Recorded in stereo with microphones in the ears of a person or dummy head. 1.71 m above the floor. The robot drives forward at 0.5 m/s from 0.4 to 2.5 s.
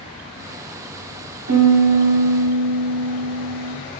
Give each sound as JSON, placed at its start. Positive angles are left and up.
{"t": 1.5, "sound": "a piano", "side_deg": -70, "distance_m": 1.5}